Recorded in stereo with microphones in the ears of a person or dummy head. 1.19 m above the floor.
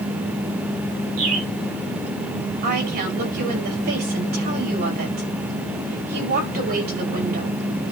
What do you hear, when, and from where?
1.2 s a bird: 80° right, 9 m
2.6 s a woman speaking: 55° right (ahead or behind), 6 m